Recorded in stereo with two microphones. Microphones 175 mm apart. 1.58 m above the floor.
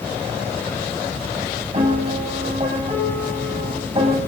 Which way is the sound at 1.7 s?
45° right (ahead or behind).